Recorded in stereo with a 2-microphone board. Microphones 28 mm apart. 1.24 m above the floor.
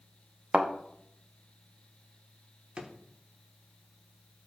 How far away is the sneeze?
I don't hear a sneeze.